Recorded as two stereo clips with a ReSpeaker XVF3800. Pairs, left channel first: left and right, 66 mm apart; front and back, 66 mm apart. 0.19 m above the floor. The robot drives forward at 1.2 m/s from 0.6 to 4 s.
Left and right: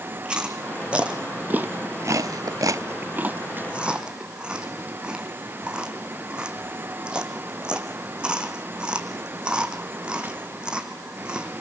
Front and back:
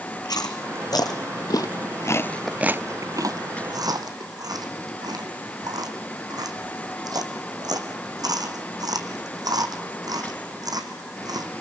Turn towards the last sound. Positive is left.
turn(degrees=-165)